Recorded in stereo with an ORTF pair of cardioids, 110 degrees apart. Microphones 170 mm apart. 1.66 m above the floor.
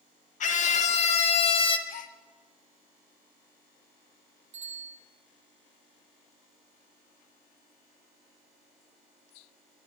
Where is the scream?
45° left, 2 m; by 1.8 s 30° left, 1.5 m.